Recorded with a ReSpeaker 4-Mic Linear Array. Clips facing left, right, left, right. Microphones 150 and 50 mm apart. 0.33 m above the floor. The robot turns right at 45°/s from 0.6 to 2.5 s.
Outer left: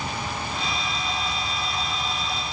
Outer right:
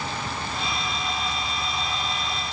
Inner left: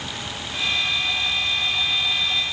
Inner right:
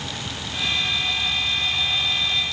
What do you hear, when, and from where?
Only background noise.